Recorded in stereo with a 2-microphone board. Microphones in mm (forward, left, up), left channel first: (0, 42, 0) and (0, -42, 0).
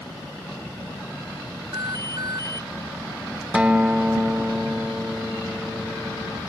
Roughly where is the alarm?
Right.